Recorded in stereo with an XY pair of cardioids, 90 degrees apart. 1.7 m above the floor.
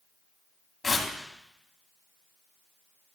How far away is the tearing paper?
About 2.5 m.